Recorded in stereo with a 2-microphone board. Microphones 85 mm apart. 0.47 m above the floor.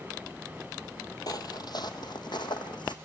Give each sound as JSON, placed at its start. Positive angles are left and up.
{"t": 1.3, "sound": "footsteps", "side_deg": 55, "distance_m": 0.7}